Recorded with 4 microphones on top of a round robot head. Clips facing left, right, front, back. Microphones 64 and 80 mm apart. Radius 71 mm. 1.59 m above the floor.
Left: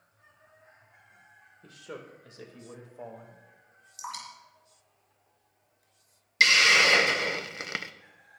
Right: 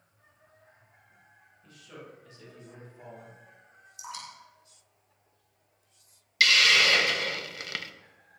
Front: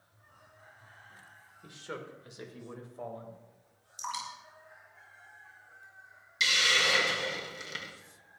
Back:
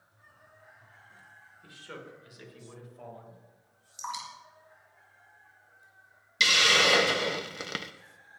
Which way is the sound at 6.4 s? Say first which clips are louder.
Left 1 dB, back 4 dB; 155° left.